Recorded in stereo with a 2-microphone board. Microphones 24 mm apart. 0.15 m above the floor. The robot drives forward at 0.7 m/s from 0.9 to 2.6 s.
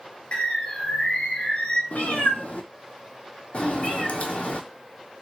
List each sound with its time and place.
0.3 s a bird: 70° left (ahead or behind), 0.8 m; by 1.8 s 55° left (ahead or behind), 0.9 m
1.9 s a cat meowing: 85° left, 0.6 m; by 4.6 s 55° left (ahead or behind), 0.7 m